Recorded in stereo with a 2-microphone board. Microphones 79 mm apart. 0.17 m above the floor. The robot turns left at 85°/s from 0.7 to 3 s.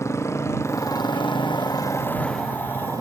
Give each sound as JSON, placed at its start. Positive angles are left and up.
{"t": 0.0, "sound": "a motorcycle", "side_deg": 35}